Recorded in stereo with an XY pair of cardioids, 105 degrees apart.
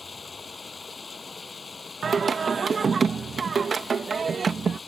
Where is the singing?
40° right.